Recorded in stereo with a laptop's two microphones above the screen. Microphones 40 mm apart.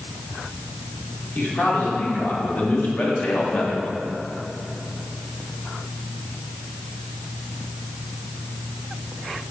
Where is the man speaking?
45° left (ahead or behind), 3.5 m; by 3.9 s 35° left (ahead or behind), 1.8 m.